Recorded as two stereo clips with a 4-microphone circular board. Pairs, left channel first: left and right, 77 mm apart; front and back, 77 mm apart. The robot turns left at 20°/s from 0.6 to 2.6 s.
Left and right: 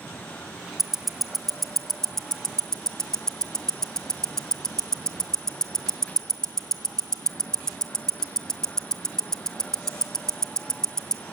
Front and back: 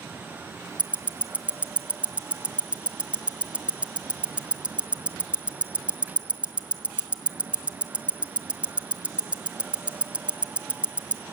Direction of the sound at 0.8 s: 170° right.